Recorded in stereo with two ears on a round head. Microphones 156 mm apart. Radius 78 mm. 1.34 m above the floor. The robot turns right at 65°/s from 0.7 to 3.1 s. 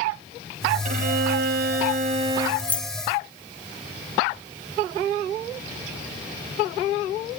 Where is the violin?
130° right, 2 m; by 2.5 s 20° right, 2 m.